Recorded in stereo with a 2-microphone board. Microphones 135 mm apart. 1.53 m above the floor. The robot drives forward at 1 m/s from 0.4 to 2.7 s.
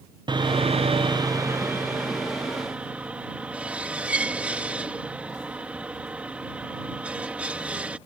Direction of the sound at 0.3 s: 35° right (ahead or behind).